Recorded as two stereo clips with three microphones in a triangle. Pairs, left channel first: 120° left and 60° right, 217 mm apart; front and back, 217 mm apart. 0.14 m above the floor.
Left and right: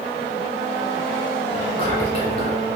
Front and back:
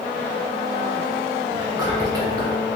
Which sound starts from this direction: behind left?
Whispering, at 1.5 s.